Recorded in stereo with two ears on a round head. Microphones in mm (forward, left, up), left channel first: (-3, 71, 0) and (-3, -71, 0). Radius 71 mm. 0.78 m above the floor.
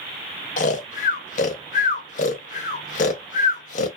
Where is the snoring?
55° left (ahead or behind), 0.6 m.